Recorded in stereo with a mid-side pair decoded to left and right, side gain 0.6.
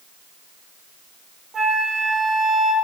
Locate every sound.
1.5 s a flute: 25° right, 0.7 m